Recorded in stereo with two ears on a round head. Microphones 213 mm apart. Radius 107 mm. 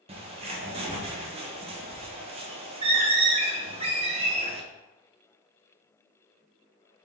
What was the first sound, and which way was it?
A bird, 25° right (ahead or behind).